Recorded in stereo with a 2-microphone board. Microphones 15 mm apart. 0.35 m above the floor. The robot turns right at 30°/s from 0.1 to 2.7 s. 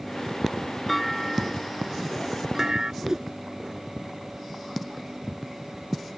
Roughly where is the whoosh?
Right.